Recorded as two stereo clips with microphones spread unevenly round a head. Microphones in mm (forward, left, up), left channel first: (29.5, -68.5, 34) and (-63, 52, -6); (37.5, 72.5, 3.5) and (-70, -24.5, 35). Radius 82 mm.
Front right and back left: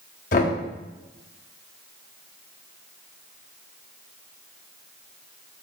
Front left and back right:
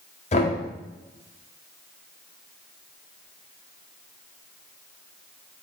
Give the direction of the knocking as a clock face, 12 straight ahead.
12 o'clock.